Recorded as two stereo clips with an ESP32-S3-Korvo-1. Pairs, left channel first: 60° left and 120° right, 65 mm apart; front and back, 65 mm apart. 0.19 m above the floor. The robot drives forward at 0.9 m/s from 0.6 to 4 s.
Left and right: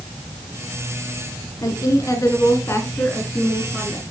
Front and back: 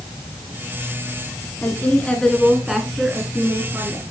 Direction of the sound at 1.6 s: 55° left.